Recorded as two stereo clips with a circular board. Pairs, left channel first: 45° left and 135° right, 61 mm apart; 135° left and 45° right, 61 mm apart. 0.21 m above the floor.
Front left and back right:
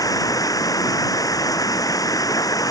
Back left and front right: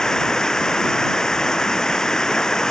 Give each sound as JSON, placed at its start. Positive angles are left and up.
{"t": 0.0, "sound": "running water", "azimuth_deg": 55}